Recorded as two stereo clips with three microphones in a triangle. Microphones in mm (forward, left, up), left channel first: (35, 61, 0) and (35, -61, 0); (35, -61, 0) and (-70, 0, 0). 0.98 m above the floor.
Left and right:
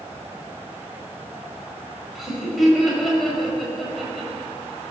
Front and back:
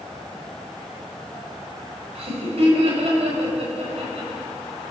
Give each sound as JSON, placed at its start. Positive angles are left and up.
{"t": 2.1, "sound": "laughter", "azimuth_deg": 180, "distance_m": 5.5}